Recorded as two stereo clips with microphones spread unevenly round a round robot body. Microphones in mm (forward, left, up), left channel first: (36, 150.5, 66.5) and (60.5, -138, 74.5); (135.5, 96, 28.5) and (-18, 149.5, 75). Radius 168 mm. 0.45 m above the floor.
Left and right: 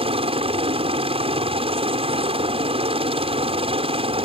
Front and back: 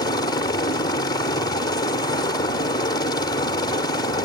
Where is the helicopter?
25° right.